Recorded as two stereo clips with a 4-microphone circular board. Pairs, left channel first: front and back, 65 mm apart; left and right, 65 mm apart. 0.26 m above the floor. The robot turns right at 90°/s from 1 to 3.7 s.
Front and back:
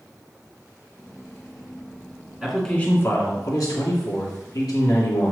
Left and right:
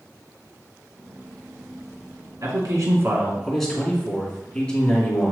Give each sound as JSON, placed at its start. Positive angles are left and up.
{"t": 2.4, "sound": "a man speaking", "azimuth_deg": -100, "distance_m": 2.5}